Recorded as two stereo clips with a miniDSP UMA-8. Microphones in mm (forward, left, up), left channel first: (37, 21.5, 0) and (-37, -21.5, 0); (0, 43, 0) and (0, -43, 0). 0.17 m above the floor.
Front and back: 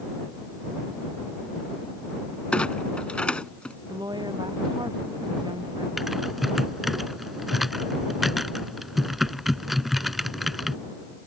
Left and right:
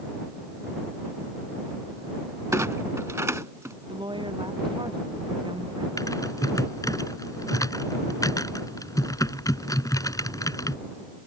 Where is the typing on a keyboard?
120° left.